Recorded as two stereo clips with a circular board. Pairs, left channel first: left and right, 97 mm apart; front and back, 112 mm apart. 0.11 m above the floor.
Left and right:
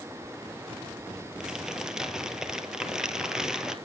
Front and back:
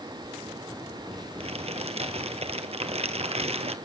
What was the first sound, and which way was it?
Crumpling, 175° right.